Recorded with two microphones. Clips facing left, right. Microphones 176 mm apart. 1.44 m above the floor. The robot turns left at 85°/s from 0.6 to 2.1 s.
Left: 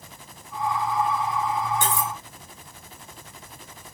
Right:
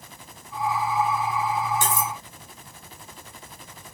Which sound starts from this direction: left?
Cutlery clinking, at 1.8 s.